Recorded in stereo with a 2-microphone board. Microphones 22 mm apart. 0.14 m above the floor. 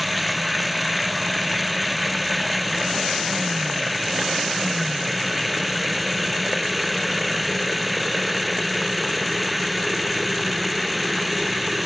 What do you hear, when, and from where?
0.0 s running water: 5° right (ahead or behind)